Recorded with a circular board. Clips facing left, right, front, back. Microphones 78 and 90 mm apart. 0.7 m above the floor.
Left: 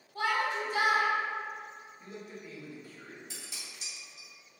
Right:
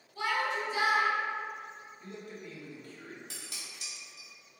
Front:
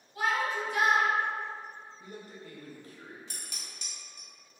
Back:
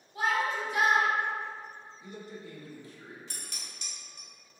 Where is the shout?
120° left, 1.3 m.